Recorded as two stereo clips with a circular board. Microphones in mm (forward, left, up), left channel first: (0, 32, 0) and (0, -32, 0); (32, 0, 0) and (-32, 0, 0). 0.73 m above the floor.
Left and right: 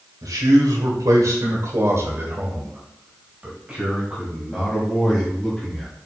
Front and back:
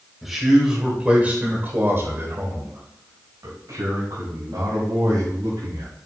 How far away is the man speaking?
About 3.5 m.